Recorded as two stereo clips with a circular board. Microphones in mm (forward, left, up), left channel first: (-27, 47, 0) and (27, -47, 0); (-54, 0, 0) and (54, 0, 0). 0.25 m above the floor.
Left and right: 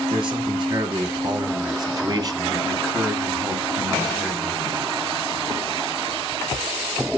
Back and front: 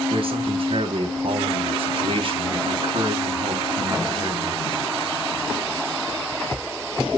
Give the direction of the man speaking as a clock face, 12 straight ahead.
1 o'clock.